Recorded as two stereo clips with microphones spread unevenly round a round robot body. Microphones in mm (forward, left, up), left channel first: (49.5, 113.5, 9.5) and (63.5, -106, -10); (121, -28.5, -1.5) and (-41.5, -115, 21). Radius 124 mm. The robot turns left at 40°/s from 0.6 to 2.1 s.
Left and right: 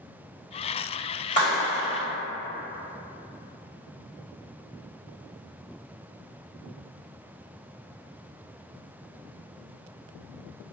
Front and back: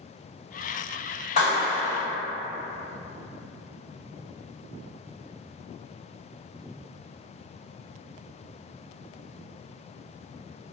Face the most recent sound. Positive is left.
turn(degrees=35)